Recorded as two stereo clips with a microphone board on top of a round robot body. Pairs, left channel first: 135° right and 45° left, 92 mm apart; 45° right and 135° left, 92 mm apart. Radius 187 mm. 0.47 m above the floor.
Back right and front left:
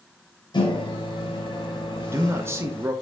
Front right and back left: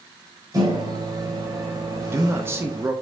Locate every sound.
0.5 s a microwave: 175° right, 2 m
2.0 s a man speaking: 90° left, 1.1 m